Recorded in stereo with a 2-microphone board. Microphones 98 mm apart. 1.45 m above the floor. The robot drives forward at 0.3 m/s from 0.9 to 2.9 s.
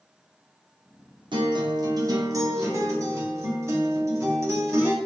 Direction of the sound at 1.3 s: 50° right (ahead or behind).